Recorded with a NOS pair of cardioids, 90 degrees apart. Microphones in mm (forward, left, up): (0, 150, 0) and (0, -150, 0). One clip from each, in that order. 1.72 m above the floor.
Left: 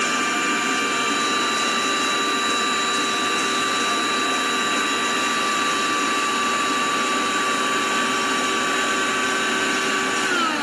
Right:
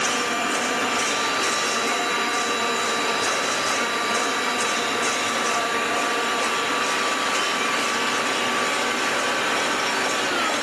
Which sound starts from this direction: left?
A machine running, at 0.0 s.